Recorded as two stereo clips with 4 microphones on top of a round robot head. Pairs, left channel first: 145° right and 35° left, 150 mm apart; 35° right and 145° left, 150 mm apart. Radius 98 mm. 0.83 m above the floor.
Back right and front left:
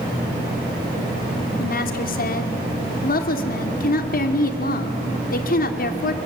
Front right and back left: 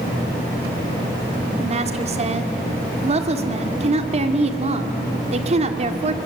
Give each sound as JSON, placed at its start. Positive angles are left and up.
{"t": 1.6, "sound": "a woman speaking", "azimuth_deg": -170, "distance_m": 2.0}